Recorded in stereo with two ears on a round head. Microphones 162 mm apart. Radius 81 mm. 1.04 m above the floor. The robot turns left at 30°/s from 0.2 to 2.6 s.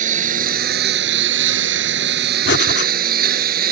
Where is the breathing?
70° left (ahead or behind).